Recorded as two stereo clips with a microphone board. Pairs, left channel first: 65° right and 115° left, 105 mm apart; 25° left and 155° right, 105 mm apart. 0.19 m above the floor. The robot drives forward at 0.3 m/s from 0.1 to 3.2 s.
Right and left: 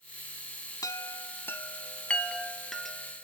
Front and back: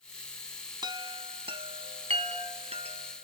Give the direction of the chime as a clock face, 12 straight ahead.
4 o'clock.